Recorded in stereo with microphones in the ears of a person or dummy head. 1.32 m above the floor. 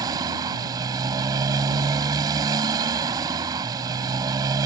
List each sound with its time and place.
0.0 s a motorcycle: 20° right (ahead or behind)